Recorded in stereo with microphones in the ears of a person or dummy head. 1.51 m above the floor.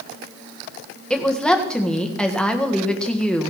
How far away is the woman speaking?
About 1.7 m.